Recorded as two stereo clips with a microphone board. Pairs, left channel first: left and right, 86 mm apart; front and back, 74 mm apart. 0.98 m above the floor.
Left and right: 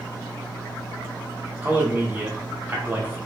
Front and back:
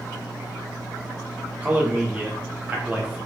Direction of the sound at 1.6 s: 130° right.